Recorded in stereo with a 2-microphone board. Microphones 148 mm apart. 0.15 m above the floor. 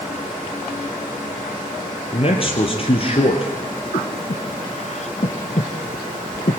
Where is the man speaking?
40° left (ahead or behind), 3.5 m.